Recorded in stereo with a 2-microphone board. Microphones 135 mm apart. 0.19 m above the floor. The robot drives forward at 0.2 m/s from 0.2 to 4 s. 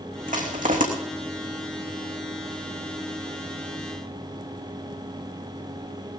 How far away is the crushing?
About 3 m.